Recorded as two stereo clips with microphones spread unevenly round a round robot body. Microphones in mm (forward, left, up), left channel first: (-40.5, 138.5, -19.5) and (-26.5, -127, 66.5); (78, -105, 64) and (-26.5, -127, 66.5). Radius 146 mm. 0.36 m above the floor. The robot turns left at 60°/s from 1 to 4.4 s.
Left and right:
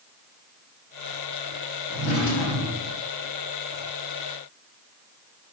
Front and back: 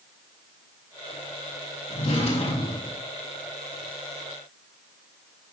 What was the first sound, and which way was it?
A drawer, 35° left.